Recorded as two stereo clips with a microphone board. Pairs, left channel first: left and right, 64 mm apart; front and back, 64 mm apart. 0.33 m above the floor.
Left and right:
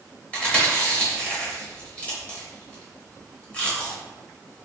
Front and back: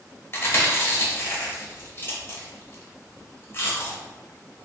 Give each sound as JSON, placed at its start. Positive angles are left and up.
{"t": 0.3, "sound": "chewing", "azimuth_deg": 30, "distance_m": 1.0}